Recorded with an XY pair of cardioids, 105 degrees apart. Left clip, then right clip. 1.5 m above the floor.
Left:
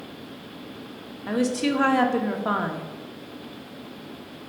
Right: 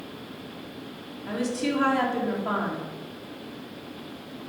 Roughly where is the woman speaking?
Ahead left.